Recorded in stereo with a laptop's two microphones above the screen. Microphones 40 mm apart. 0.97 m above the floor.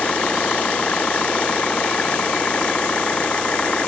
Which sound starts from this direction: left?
An engine running, at 0.0 s.